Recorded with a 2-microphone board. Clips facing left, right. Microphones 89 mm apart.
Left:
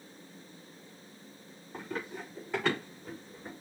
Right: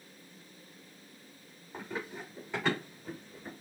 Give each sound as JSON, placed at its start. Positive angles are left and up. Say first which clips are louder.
{"t": 1.7, "sound": "running footsteps", "louder": "left 1 dB", "side_deg": -5, "distance_m": 3.5}